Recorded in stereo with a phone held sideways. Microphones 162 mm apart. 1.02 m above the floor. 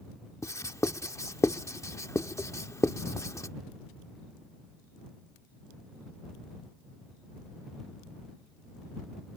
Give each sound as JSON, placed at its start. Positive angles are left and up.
{"t": 0.4, "sound": "writing", "side_deg": 20}